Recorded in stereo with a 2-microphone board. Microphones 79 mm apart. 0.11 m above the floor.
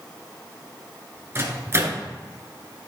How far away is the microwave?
About 1.0 m.